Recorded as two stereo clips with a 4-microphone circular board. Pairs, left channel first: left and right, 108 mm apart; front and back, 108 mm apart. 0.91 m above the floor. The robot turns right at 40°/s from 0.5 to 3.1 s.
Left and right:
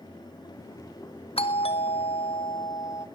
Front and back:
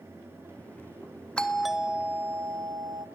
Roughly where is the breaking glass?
No breaking glass in this recording.